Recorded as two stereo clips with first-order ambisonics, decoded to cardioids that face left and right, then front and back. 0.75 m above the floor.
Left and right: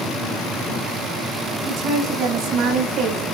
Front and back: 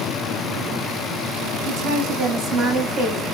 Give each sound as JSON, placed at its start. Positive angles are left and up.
{"t": 1.6, "sound": "a woman speaking", "azimuth_deg": -130, "distance_m": 5.5}